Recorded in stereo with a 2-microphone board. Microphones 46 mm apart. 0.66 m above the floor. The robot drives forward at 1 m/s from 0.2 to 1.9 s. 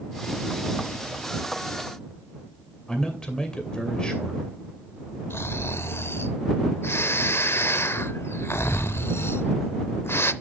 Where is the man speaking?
15° left (ahead or behind), 2.5 m.